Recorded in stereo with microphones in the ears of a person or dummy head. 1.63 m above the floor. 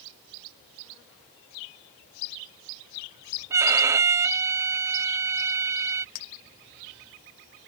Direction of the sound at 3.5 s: 15° right (ahead or behind).